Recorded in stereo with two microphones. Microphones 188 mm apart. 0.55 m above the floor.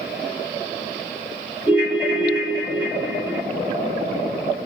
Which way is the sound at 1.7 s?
10° right (ahead or behind).